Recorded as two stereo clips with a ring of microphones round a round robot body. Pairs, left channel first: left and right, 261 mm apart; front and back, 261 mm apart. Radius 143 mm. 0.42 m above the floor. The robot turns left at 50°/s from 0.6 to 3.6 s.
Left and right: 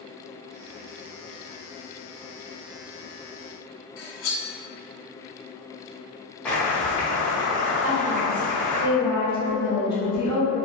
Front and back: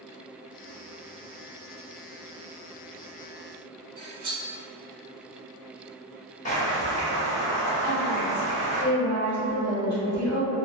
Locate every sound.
4.0 s cutlery clinking: 110° left, 0.9 m
6.5 s boiling: 10° left, 0.8 m
7.8 s a woman speaking: 55° right, 1.4 m